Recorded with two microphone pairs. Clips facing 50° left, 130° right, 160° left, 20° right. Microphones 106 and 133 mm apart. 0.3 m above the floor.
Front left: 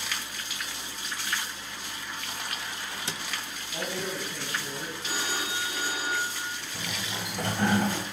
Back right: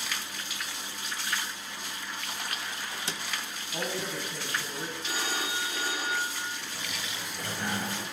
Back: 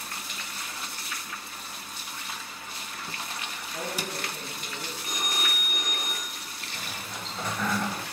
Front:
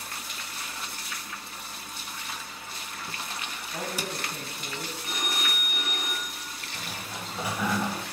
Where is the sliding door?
50° left, 0.5 m.